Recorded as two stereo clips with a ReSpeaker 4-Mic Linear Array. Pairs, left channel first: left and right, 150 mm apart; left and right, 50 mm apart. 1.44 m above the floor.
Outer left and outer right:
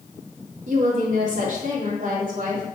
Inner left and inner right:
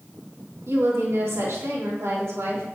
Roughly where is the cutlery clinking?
No cutlery clinking in this recording.